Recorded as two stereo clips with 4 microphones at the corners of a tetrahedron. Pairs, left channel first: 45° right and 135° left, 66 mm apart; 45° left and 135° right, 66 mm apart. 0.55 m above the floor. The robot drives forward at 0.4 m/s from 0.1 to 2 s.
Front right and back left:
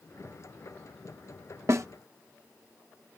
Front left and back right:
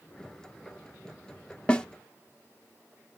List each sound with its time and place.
1.7 s a snare drum: 115° left, 0.9 m; by 1.9 s 120° left, 0.9 m